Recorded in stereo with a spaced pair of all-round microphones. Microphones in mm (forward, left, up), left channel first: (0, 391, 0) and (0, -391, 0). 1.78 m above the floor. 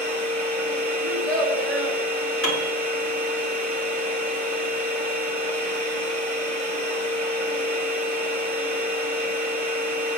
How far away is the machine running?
About 1.1 m.